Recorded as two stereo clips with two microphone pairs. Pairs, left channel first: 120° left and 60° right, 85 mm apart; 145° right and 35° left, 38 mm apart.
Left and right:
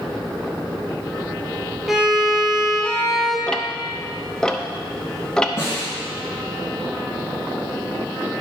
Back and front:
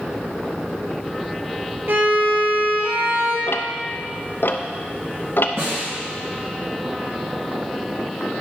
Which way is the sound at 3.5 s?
155° right.